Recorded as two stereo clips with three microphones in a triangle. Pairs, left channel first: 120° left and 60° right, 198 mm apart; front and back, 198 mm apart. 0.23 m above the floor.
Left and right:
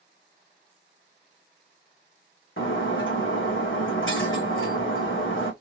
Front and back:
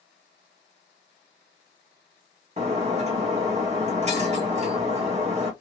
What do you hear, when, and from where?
2.6 s breaking glass: 125° left, 1.8 m